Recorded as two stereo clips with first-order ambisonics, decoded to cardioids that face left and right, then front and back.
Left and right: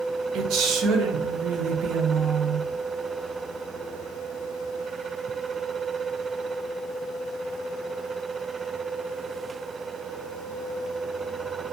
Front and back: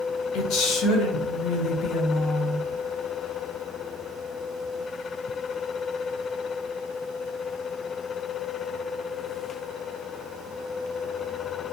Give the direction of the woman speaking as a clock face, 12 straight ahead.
1 o'clock.